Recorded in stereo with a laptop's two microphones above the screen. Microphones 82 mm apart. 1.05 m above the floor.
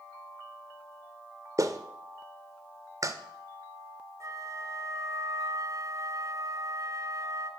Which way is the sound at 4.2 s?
40° right (ahead or behind).